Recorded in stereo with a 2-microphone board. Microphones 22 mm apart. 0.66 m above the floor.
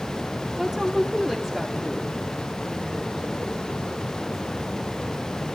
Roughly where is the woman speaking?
Centre.